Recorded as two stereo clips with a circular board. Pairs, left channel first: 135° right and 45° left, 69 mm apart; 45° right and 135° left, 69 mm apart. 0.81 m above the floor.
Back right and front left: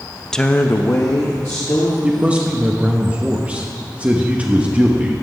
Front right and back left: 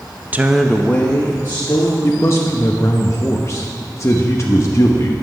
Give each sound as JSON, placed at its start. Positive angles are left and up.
{"t": 0.3, "sound": "a woman speaking", "azimuth_deg": 150, "distance_m": 0.6}
{"t": 2.0, "sound": "a man speaking", "azimuth_deg": -20, "distance_m": 0.9}